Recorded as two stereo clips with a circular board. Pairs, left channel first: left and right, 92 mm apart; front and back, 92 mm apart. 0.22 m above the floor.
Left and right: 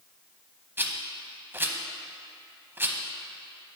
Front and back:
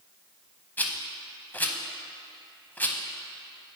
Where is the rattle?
50° right, 0.6 m.